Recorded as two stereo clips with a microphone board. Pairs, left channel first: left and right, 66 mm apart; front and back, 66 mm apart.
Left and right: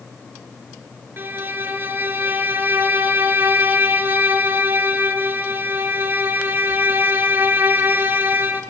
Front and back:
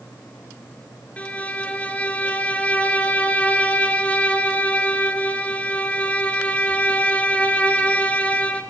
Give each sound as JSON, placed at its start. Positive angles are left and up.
{"t": 1.2, "sound": "a violin", "azimuth_deg": -55, "distance_m": 0.5}